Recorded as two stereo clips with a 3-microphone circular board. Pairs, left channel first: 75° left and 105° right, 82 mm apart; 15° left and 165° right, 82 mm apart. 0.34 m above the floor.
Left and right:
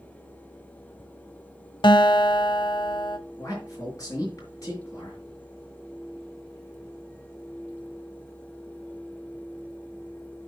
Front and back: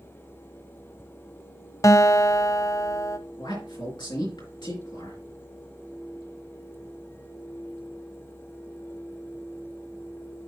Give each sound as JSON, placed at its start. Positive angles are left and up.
{"t": 1.8, "sound": "a guitar", "azimuth_deg": 60, "distance_m": 0.5}
{"t": 3.4, "sound": "a man speaking", "azimuth_deg": 30, "distance_m": 5.0}